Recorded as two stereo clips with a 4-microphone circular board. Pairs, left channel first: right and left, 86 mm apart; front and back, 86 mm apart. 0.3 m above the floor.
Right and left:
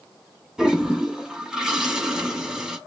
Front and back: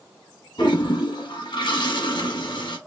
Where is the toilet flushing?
10° left, 1.2 m.